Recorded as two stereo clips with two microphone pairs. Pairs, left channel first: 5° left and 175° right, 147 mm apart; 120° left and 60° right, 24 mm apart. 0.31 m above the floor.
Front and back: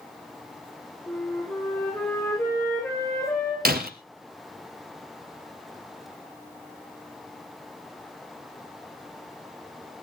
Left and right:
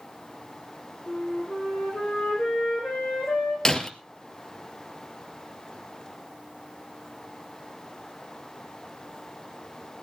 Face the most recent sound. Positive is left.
turn(degrees=-175)